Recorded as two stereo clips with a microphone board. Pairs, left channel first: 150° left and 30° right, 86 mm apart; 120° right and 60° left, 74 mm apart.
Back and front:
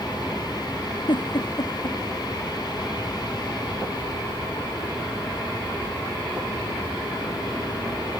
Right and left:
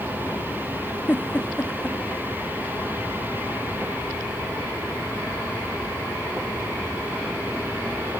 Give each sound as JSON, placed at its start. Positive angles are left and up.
{"t": 1.1, "sound": "a giggle", "azimuth_deg": 175}